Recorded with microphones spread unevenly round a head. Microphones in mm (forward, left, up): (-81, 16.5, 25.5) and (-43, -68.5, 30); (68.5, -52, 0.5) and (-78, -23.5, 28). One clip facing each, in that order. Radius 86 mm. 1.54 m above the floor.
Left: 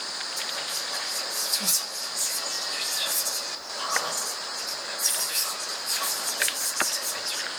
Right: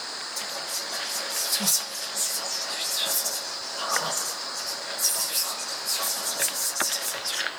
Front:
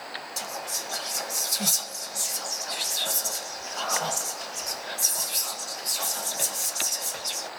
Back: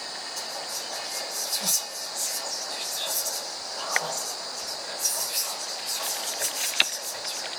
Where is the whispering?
40° right, 0.8 m.